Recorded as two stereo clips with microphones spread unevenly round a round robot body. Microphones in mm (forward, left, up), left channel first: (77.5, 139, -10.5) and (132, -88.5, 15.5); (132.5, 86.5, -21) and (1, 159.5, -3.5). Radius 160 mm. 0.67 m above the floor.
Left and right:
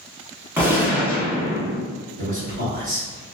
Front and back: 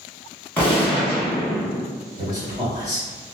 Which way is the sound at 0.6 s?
5° left.